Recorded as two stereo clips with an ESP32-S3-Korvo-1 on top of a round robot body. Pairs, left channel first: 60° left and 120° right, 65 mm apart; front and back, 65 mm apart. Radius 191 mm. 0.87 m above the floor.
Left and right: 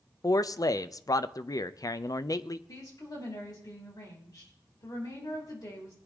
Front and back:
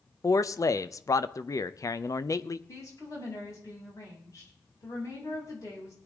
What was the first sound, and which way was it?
A man speaking, 30° left.